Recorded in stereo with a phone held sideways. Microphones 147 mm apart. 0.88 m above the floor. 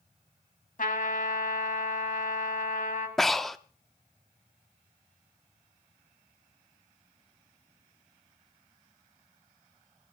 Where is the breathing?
Centre (ahead or behind), 0.6 m.